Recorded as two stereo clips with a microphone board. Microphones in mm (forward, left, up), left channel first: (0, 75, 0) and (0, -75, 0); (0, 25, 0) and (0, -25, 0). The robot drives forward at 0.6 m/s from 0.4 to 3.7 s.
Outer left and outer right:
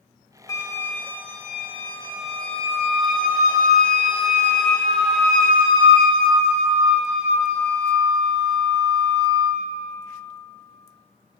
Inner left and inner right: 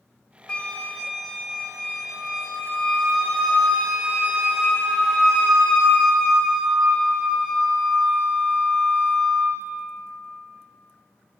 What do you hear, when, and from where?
0.5 s a flute: 25° left (ahead or behind), 0.6 m; by 9.6 s 5° left (ahead or behind), 2.5 m